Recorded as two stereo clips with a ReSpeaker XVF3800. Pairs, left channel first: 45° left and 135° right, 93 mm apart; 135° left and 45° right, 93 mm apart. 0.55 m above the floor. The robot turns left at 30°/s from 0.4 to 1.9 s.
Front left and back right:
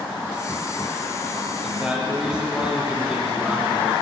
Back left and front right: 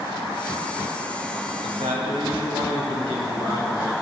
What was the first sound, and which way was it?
A man speaking, 45° right.